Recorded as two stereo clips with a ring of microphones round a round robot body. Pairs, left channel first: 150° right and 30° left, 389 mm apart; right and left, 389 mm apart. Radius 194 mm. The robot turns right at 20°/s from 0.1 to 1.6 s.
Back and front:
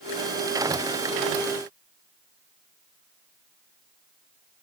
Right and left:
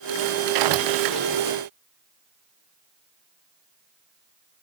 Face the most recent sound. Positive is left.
No sound to turn to.